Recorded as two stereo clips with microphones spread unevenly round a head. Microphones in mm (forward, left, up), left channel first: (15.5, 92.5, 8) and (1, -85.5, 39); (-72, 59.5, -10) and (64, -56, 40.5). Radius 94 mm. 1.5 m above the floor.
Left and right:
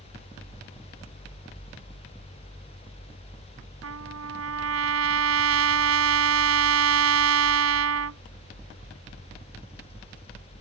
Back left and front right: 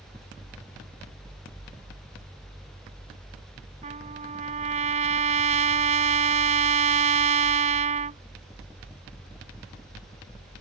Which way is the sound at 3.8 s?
90° right.